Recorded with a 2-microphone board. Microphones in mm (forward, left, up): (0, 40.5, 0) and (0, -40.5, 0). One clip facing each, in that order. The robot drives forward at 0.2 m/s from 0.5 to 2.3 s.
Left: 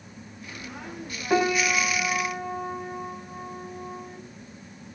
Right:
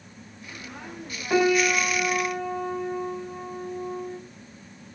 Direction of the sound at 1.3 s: 10° left (ahead or behind).